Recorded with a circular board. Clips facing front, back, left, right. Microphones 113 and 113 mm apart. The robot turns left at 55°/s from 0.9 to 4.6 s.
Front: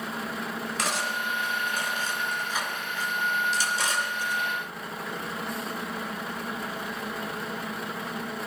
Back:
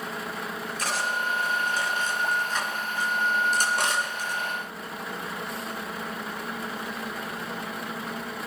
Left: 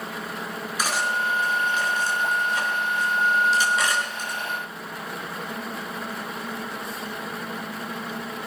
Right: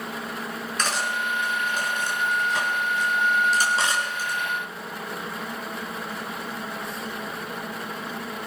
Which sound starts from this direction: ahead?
Cutlery clinking, at 0.8 s.